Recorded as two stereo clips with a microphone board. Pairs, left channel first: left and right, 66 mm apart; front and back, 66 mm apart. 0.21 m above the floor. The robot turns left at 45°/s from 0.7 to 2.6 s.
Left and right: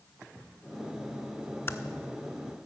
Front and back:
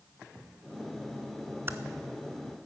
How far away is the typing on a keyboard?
About 0.6 m.